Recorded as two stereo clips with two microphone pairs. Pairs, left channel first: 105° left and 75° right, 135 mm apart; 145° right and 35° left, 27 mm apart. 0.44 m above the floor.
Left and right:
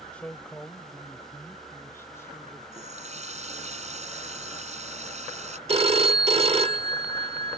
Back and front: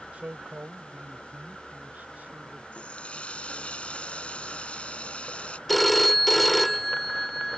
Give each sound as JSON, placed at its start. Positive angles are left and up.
{"t": 0.1, "sound": "a man speaking", "azimuth_deg": 30}
{"t": 2.7, "sound": "a running tap", "azimuth_deg": -105}
{"t": 5.7, "sound": "a phone ringing", "azimuth_deg": -65}